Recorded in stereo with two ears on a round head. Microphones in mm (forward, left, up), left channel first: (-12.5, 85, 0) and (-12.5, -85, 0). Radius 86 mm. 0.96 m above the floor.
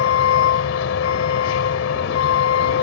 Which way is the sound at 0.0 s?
75° left (ahead or behind).